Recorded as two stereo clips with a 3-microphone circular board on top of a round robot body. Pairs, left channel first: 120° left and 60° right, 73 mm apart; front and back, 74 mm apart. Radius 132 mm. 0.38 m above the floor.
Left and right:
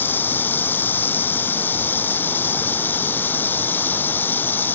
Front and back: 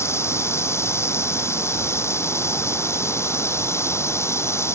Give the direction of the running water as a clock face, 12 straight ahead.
10 o'clock.